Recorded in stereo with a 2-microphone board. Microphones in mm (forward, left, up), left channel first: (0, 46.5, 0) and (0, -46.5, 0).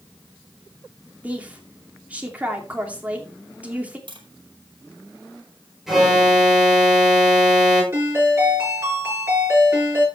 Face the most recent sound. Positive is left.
turn(degrees=-25)  # may be behind; listen again after turning